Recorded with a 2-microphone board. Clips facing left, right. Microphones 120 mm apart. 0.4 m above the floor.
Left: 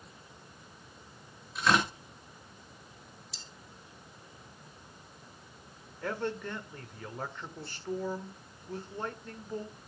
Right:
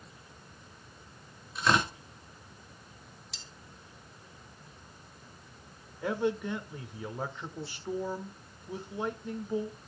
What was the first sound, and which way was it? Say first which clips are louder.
Tearing paper: even; centre (ahead or behind).